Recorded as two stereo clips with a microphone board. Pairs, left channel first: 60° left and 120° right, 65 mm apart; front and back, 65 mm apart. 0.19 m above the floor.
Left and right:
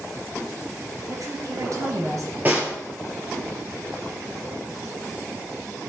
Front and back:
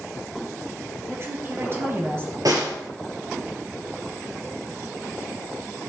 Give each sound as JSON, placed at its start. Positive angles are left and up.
{"t": 1.1, "sound": "a woman speaking", "azimuth_deg": -135, "distance_m": 3.0}
{"t": 2.5, "sound": "a snare drum", "azimuth_deg": 180, "distance_m": 3.0}